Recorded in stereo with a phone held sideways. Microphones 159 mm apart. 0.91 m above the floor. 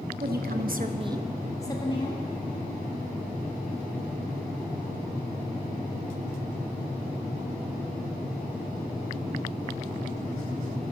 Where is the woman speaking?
75° right (ahead or behind), 1.4 m; by 2.2 s 40° left (ahead or behind), 1.7 m.